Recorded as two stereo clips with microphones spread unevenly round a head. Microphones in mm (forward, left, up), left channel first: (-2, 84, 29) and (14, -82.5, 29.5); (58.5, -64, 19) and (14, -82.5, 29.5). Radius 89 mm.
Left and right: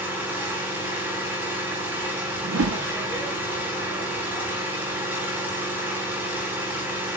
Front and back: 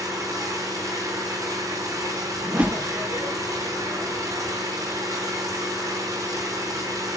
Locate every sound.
0.0 s an engine running: 165° right, 4.5 m
2.4 s a whoosh: 95° right, 0.9 m